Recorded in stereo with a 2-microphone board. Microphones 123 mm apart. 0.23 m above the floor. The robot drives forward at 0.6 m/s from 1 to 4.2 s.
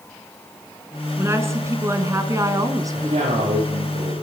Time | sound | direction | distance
1.2 | a woman speaking | 20° right (ahead or behind) | 3 m
2.9 | a man speaking | 55° right (ahead or behind) | 9.5 m